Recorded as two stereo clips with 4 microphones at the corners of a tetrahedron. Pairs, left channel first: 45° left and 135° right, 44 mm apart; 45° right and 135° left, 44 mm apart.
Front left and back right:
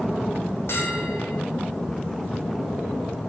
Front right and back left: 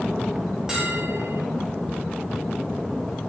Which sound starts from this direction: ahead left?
A bell, at 0.7 s.